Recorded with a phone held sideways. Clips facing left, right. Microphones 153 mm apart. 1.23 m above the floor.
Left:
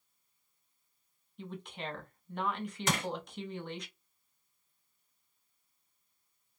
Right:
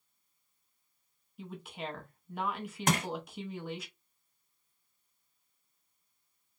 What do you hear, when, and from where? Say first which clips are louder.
1.4 s a woman speaking: right 1 dB; 5° right (ahead or behind), 0.9 m
2.9 s crushing: right 4 dB; 50° right (ahead or behind), 1.6 m